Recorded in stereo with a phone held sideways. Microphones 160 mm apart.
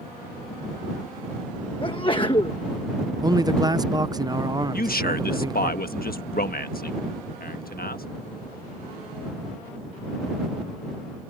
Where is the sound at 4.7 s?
70° left (ahead or behind).